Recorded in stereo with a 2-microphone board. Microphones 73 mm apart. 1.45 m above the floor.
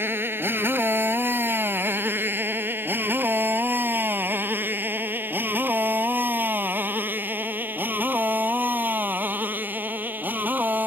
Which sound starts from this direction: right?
A motorcycle, at 0.0 s.